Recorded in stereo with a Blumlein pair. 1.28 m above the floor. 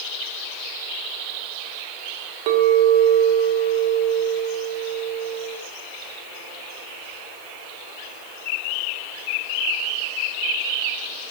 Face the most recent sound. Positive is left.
turn(degrees=-45)